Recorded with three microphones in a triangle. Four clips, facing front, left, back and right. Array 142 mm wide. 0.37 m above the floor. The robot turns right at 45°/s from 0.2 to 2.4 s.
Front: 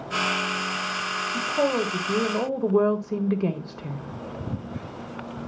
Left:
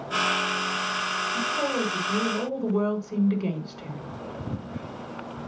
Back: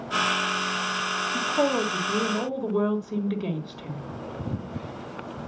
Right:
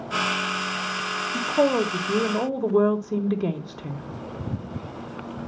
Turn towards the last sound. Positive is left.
turn(degrees=-45)